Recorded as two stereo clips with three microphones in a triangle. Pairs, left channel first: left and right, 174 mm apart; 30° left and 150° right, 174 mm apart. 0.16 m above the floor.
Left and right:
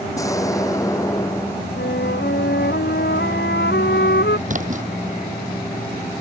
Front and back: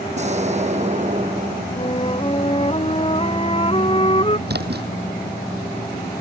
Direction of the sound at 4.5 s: 130° right.